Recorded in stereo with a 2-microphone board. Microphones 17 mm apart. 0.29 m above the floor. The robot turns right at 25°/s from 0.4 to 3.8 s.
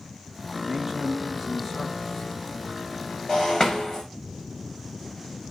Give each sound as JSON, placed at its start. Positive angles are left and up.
{"t": 0.6, "sound": "a man speaking", "azimuth_deg": -30, "distance_m": 4.0}
{"t": 3.3, "sound": "breaking glass", "side_deg": 30, "distance_m": 5.0}